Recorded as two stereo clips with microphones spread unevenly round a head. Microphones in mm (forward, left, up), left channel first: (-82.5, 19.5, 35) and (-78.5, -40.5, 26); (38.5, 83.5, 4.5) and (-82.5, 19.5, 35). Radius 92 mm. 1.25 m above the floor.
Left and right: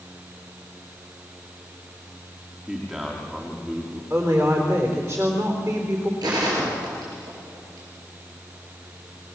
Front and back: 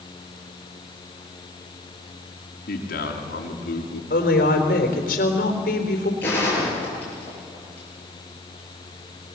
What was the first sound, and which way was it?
A man speaking, straight ahead.